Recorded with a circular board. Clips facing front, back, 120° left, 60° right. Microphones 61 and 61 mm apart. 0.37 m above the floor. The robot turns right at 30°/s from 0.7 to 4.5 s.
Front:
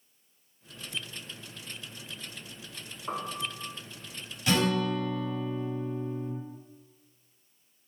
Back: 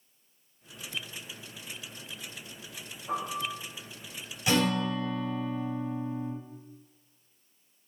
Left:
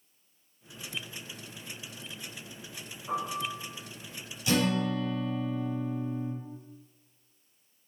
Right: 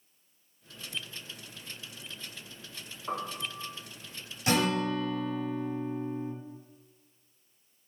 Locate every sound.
3.1 s a piano: 10° right, 0.8 m; by 3.6 s 5° left, 0.8 m
4.5 s a guitar: 100° right, 0.7 m